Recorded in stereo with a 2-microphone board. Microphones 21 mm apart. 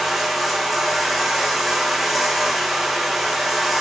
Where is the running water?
5° right (ahead or behind), 2.5 m.